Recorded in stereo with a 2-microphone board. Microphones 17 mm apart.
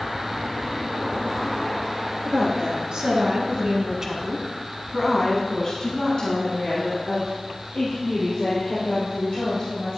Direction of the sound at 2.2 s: 55° right (ahead or behind).